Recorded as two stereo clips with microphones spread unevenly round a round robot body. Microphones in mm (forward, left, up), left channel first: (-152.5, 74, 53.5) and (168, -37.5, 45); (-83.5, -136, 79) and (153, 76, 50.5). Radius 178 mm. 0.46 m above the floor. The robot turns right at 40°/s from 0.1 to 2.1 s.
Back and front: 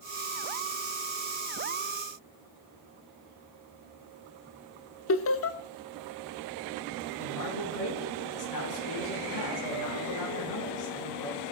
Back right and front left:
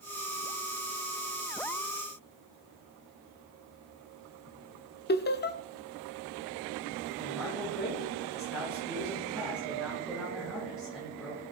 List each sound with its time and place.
5.1 s laughter: 175° left, 0.9 m
7.2 s a man speaking: 130° left, 6.5 m